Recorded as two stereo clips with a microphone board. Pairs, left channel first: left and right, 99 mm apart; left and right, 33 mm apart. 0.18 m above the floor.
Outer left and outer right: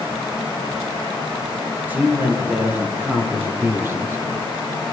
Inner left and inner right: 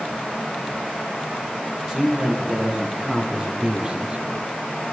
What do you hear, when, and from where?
1.9 s a man speaking: 20° right (ahead or behind), 6.5 m; by 4.8 s 35° right (ahead or behind), 2.5 m